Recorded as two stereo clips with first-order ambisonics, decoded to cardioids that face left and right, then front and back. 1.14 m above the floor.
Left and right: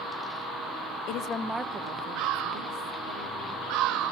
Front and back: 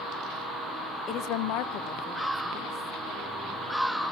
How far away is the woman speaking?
About 0.7 m.